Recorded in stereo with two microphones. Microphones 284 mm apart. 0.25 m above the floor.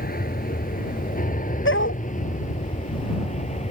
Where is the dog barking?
45° left (ahead or behind).